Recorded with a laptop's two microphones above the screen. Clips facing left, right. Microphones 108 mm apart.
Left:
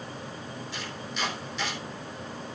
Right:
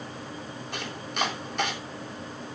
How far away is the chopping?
About 3.5 m.